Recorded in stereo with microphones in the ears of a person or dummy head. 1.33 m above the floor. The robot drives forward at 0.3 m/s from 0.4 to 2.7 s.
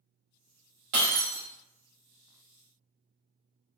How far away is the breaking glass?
About 1.6 m.